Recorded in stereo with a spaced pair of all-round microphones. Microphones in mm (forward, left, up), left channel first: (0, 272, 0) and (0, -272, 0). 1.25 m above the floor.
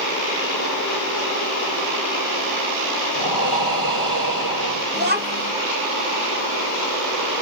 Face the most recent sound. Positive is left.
turn(degrees=-20)  # may be behind; listen again after turning